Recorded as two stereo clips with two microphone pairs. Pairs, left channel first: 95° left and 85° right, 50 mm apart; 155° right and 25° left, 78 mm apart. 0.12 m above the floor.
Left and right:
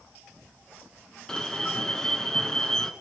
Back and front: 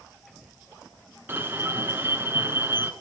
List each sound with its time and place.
1.3 s an alarm: 25° left, 1.1 m